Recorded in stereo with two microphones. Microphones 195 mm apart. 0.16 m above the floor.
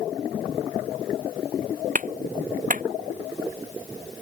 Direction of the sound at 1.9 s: 45° right (ahead or behind).